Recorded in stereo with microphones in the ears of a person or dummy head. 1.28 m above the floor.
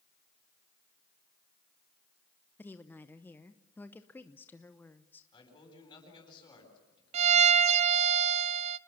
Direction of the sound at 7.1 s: 40° right (ahead or behind).